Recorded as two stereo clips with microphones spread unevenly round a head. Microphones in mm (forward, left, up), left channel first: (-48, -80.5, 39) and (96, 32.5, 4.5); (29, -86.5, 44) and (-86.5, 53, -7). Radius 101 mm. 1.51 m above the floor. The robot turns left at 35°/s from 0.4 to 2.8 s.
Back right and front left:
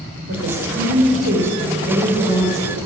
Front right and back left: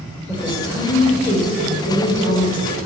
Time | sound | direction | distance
0.3 | a woman speaking | 20° left | 4.5 m